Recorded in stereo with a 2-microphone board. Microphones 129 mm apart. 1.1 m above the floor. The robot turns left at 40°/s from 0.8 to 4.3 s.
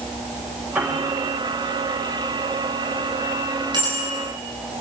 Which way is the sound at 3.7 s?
35° right (ahead or behind).